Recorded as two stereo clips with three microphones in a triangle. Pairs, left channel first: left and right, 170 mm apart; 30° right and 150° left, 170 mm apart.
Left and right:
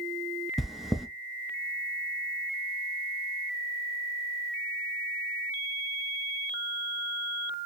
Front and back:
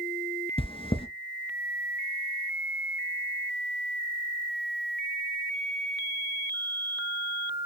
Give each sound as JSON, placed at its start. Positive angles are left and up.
{"t": 0.6, "sound": "chewing", "azimuth_deg": 0, "distance_m": 0.7}